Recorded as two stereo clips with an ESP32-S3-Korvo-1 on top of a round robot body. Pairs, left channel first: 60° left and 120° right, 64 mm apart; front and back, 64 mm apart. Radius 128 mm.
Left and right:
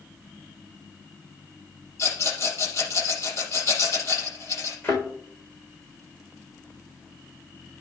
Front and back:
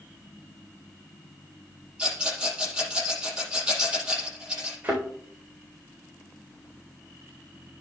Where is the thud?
115° left, 4 m.